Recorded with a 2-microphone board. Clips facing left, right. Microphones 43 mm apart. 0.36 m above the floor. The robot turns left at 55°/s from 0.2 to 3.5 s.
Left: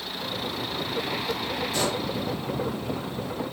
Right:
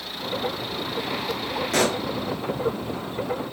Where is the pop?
80° right, 2 m.